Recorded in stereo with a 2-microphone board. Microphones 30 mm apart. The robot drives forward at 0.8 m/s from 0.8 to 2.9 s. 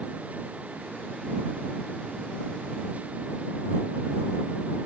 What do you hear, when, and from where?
Only background noise.